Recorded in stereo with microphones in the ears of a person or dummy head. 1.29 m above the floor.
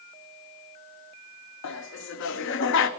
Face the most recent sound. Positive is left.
turn(degrees=60)  # may be behind; listen again after turning